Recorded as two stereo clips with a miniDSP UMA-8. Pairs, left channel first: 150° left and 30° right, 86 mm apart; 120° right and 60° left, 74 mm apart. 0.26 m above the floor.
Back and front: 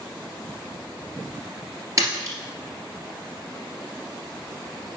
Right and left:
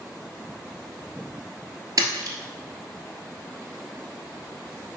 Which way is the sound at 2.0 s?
20° left.